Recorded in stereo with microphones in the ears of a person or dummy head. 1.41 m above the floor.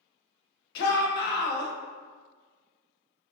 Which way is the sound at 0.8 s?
55° left (ahead or behind).